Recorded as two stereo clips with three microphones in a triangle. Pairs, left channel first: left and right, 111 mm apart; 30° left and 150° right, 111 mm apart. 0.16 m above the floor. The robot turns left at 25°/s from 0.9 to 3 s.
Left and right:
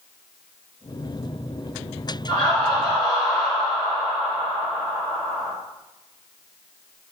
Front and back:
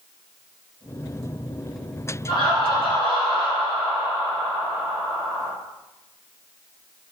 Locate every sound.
2.3 s laughter: 60° left, 1.9 m; by 5.5 s 40° left, 1.9 m